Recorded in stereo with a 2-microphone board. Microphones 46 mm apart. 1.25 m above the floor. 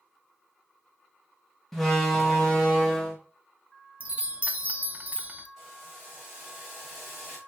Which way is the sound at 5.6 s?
5° right (ahead or behind).